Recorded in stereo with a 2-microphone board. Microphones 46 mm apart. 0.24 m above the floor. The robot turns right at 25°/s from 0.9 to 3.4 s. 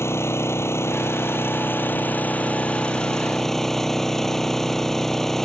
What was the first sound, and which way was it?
An engine running, 110° left.